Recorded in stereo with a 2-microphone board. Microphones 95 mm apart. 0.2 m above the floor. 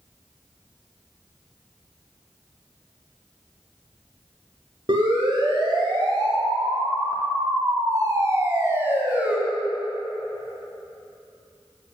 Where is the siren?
55° right (ahead or behind), 4 m; by 9.4 s 15° right (ahead or behind), 2 m.